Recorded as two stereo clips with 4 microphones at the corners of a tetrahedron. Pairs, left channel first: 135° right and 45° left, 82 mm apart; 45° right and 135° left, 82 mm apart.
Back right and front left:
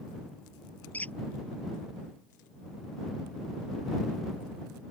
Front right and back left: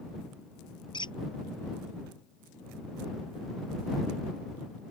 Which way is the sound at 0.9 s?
65° right.